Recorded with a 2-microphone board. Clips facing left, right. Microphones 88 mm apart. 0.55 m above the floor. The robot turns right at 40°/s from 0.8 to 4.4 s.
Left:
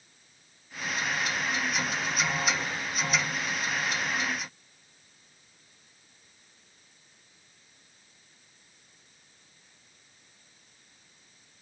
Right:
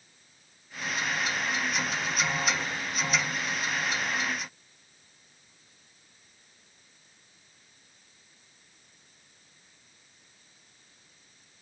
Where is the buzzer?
I don't hear a buzzer.